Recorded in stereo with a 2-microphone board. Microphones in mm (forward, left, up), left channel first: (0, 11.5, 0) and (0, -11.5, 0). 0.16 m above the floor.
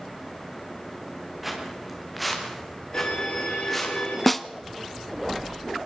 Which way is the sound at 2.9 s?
55° left (ahead or behind).